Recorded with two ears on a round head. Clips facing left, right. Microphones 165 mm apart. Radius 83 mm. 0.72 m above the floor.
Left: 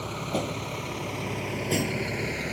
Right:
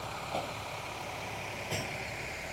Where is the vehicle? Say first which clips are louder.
Left 7 dB; 55° left (ahead or behind); by 2.5 s 70° left (ahead or behind).